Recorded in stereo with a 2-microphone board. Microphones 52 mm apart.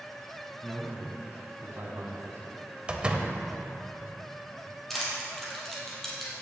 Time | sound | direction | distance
0.6 | a man speaking | 15° right (ahead or behind) | 2.5 m
2.9 | a door slam | 20° right (ahead or behind) | 0.9 m
4.9 | crushing | 5° left (ahead or behind) | 3.5 m